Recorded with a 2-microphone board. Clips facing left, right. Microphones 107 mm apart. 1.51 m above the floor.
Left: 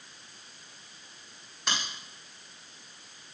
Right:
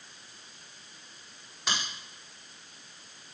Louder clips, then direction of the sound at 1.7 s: Even; centre (ahead or behind).